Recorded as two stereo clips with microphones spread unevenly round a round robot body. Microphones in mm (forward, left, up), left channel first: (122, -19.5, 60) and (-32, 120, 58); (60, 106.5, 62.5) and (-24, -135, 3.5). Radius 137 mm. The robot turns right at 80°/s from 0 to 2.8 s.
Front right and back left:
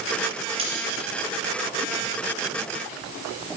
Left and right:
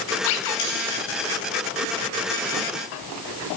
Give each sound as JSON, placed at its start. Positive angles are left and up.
{"t": 0.6, "sound": "cutlery clinking", "azimuth_deg": 75, "distance_m": 5.0}